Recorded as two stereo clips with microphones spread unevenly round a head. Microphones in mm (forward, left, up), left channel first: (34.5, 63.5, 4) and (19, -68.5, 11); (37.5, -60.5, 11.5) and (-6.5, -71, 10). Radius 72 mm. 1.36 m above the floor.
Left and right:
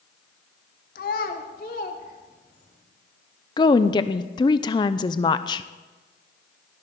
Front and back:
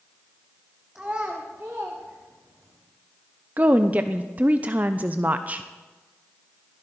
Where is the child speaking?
110° left, 1.3 m; by 2.8 s 125° left, 3 m.